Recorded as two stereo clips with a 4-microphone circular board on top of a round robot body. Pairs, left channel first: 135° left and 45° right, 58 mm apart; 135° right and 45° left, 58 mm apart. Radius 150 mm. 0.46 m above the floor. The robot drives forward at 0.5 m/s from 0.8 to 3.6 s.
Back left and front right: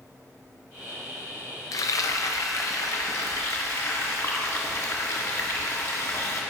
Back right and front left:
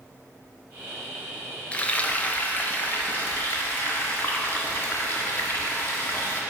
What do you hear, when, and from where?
1.7 s frying: 155° left, 0.6 m; by 6.4 s 170° left, 1.5 m